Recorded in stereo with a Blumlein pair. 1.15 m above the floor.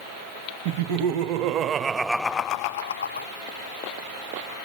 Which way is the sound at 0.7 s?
50° right.